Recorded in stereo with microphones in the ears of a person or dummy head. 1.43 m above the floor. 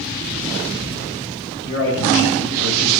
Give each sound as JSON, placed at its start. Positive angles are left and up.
{"t": 1.6, "sound": "a man speaking", "side_deg": -25, "distance_m": 7.5}